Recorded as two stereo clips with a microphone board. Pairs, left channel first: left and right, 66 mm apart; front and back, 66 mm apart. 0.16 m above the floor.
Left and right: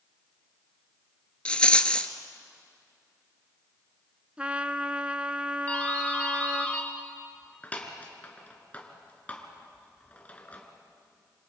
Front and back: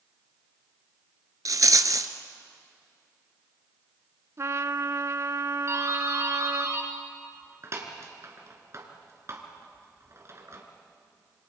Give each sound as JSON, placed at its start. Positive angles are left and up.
{"t": 1.4, "sound": "a rattle", "azimuth_deg": 165, "distance_m": 0.8}
{"t": 4.4, "sound": "a trumpet", "azimuth_deg": -155, "distance_m": 0.7}
{"t": 5.7, "sound": "a doorbell", "azimuth_deg": 155, "distance_m": 2.5}